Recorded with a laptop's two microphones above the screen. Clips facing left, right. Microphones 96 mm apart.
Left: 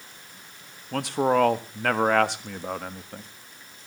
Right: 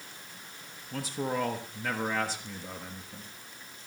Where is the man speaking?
70° left (ahead or behind), 1.3 m.